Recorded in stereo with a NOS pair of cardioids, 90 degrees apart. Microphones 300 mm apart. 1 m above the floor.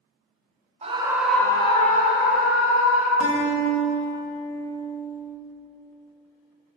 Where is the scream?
20° right, 0.7 m; by 3.1 s 50° left, 1.3 m.